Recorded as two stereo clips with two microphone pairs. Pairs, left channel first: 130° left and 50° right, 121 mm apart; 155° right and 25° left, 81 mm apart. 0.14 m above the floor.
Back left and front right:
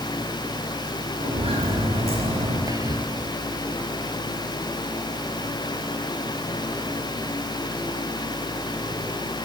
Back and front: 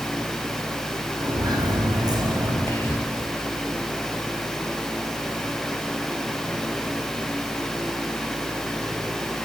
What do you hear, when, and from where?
1.2 s footsteps: 10° right, 9 m
2.7 s whispering: 100° right, 2.5 m